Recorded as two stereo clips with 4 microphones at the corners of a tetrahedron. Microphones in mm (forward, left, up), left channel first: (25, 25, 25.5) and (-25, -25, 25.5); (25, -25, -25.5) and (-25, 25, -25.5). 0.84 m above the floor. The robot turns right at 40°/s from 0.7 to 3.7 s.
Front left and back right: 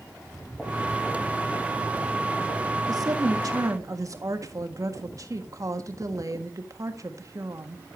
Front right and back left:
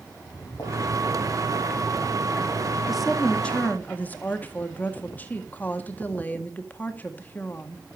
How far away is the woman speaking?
About 1.6 m.